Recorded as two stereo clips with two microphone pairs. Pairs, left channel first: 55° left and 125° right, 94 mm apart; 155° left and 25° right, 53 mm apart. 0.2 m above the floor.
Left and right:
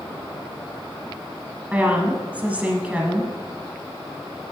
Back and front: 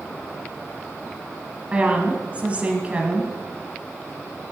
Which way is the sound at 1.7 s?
60° right.